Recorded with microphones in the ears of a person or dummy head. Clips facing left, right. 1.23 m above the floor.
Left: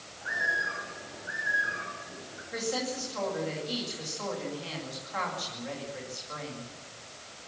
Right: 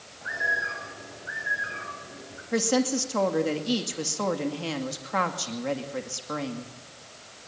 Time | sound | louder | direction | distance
0.2 | a bird | right 3 dB | 35° right (ahead or behind) | 6.5 m
2.5 | a woman speaking | right 9 dB | 60° right (ahead or behind) | 2.5 m